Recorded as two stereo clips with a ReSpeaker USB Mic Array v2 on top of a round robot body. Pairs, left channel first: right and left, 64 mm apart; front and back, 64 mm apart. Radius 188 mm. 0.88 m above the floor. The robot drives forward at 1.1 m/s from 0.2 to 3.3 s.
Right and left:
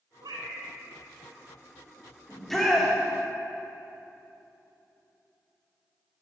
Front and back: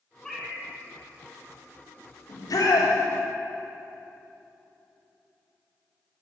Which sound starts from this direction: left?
A cat meowing, at 0.2 s.